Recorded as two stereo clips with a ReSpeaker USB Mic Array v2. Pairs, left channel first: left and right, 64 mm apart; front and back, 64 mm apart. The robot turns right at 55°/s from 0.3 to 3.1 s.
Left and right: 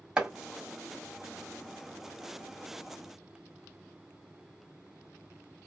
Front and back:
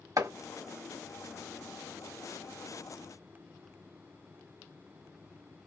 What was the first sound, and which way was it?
Chopping, 165° right.